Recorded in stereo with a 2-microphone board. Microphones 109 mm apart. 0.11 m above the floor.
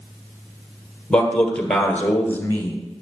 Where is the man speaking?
10° left (ahead or behind), 2.5 m; by 2.8 s 20° left (ahead or behind), 1.1 m.